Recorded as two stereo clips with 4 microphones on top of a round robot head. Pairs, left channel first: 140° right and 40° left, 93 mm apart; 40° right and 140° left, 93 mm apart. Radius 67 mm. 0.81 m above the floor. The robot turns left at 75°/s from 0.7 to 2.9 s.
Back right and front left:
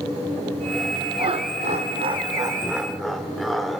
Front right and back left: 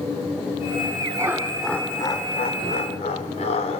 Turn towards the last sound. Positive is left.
turn(degrees=-50)